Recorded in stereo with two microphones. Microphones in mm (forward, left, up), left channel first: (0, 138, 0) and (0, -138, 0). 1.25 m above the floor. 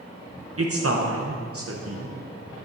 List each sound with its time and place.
0.6 s a man speaking: 55° right (ahead or behind), 0.8 m